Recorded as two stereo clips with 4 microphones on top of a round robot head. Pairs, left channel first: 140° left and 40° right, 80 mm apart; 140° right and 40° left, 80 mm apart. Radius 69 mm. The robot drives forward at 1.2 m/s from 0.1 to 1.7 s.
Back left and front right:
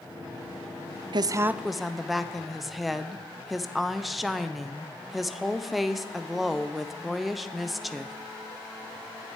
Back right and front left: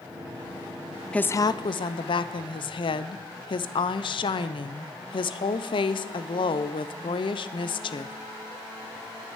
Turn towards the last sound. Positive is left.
turn(degrees=-130)